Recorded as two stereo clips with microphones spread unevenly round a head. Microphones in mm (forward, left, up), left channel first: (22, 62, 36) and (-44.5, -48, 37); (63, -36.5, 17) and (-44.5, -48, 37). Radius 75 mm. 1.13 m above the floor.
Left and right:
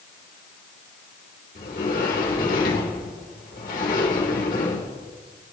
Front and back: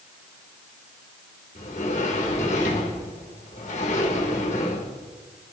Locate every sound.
1.6 s a sliding door: 35° left, 3 m